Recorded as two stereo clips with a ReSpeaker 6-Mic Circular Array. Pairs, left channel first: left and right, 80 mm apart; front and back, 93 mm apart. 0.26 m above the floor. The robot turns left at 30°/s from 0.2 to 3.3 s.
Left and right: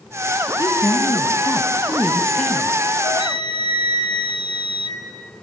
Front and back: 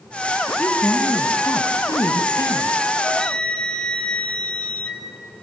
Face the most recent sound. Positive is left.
turn(degrees=80)